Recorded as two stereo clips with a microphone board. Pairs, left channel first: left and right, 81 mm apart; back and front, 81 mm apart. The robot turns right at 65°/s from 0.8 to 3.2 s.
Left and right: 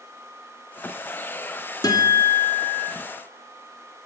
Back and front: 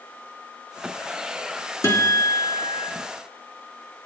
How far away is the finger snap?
I don't hear a finger snap.